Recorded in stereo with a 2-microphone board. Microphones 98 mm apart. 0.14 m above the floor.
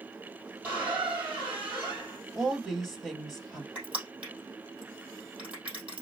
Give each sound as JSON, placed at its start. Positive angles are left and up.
{"t": 0.6, "sound": "a squeak", "side_deg": -20, "distance_m": 3.0}
{"t": 2.4, "sound": "a woman speaking", "side_deg": 0, "distance_m": 2.5}
{"t": 3.8, "sound": "crushing", "side_deg": -15, "distance_m": 3.0}